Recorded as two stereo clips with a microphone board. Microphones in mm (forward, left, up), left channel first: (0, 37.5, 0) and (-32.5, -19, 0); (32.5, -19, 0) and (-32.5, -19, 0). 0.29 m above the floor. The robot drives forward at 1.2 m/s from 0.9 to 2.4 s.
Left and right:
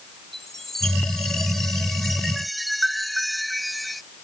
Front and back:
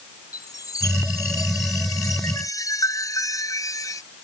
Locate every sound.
0.3 s a chime: 25° right; by 4.0 s 30° right